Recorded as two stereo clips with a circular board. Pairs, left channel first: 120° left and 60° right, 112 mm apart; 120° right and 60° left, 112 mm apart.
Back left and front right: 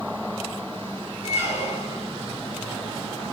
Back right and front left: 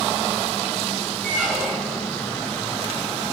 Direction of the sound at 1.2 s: 150° left.